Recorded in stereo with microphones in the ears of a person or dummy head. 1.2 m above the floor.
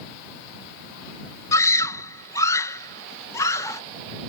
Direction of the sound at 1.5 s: 20° left (ahead or behind).